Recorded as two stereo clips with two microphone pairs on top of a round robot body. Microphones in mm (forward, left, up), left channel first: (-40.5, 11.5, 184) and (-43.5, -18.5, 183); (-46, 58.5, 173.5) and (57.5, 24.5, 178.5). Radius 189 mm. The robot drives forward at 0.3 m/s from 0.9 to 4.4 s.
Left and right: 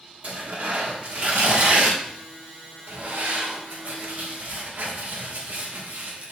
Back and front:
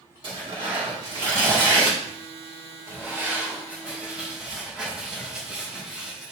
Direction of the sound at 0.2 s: 65° right.